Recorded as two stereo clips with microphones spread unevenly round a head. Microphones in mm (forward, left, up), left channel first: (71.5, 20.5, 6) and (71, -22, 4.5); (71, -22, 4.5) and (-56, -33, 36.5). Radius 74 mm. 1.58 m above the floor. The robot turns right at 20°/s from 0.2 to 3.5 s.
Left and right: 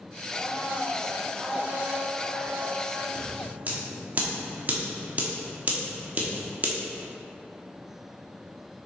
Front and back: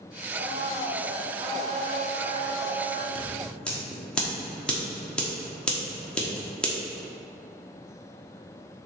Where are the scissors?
105° right, 1.2 m; by 6.7 s 95° right, 1.2 m.